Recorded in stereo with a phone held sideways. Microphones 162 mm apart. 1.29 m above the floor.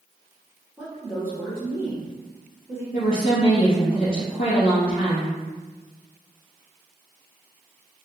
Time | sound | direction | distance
0.8 | a woman speaking | 15° right (ahead or behind) | 1.0 m
2.9 | a woman speaking | 55° left (ahead or behind) | 1.7 m